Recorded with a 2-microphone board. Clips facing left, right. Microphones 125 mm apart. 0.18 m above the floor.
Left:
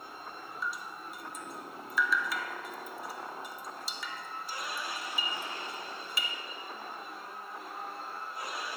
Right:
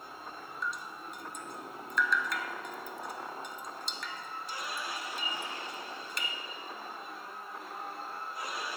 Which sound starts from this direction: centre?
Dripping, at 0.6 s.